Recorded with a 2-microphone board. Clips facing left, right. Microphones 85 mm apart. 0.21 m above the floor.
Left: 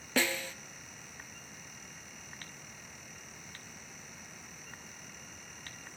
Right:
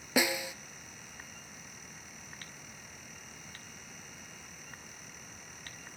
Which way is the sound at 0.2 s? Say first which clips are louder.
Right 2 dB; 10° right (ahead or behind).